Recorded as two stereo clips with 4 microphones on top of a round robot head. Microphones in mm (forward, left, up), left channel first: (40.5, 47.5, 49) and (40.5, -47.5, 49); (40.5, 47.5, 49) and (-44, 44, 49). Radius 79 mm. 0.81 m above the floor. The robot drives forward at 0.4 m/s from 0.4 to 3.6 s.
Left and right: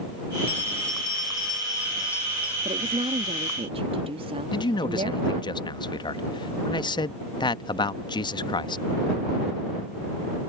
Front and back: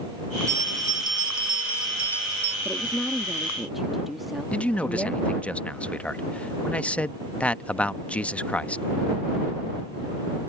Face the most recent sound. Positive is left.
turn(degrees=75)